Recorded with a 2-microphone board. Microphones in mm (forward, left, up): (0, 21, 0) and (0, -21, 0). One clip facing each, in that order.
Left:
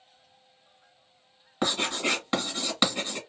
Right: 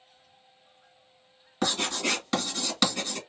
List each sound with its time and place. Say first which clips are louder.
1.6 s writing: left 1 dB; 20° left (ahead or behind), 1.8 m